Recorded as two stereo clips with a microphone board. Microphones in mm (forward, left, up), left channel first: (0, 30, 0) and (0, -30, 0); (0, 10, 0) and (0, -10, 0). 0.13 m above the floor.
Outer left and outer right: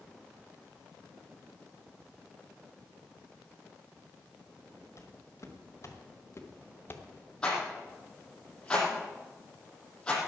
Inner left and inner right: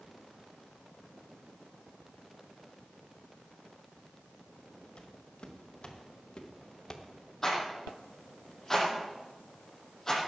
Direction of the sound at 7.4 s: 15° left (ahead or behind).